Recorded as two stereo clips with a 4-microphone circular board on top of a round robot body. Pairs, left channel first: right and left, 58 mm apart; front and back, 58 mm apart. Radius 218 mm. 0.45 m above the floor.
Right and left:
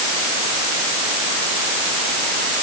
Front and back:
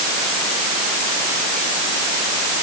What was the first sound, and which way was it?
Only background noise.